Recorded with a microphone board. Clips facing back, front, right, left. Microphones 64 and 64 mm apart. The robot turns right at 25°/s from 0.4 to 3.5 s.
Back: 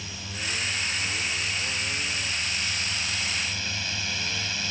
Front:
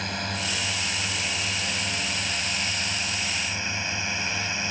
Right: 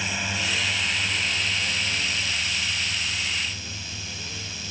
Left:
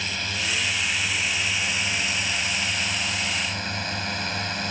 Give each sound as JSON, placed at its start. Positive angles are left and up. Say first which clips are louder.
{"t": 0.0, "sound": "a drone", "louder": "front 6 dB, right 1 dB", "azimuth_deg": -15}